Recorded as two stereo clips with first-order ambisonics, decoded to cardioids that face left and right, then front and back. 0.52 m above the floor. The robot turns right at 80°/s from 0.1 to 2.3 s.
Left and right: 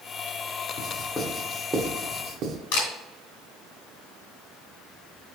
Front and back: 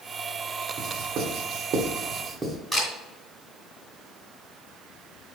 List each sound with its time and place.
0.8 s writing: 125° left, 1.2 m; by 2.6 s 110° right, 1.2 m
2.7 s a camera shutter: 85° left, 3 m